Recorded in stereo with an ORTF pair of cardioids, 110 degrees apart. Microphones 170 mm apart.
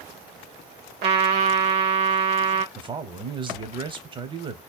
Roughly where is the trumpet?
Ahead right.